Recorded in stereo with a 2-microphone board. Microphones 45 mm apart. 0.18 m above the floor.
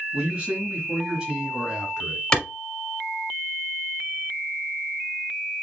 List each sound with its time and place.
0.1 s a man speaking: 20° right (ahead or behind), 1.7 m; by 2.2 s 15° right (ahead or behind), 2 m
2.3 s a clap: 20° left (ahead or behind), 1.2 m